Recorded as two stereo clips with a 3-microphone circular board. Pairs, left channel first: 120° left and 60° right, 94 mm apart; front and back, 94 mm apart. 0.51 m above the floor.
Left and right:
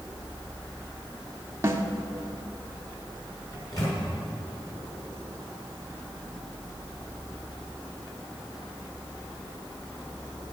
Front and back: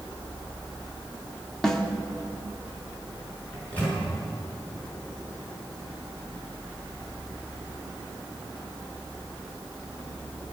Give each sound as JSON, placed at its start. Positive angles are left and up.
{"t": 1.6, "sound": "a snare drum", "azimuth_deg": -80, "distance_m": 1.3}
{"t": 3.5, "sound": "a microwave", "azimuth_deg": 70, "distance_m": 6.5}